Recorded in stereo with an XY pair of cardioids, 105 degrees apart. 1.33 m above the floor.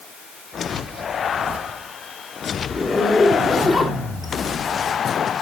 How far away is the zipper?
About 3 m.